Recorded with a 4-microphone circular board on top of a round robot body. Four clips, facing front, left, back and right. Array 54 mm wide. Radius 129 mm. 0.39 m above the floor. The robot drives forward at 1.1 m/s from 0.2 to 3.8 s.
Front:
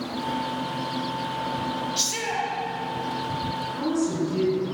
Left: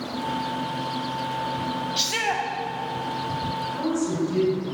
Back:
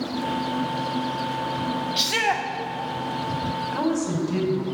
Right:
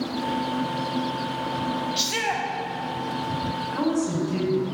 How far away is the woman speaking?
About 3.5 m.